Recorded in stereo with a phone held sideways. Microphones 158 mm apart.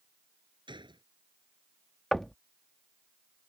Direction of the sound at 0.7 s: 30° right (ahead or behind).